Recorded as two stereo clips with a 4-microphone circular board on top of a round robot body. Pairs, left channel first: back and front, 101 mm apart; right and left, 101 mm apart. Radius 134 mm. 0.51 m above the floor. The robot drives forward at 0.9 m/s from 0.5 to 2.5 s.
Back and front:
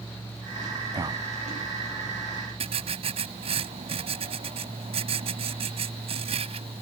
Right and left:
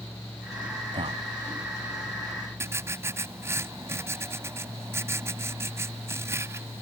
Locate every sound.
0.9 s a man speaking: 55° left
2.6 s writing: 25° left